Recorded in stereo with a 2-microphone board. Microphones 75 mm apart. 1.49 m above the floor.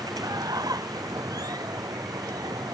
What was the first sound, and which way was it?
Running water, 55° right (ahead or behind).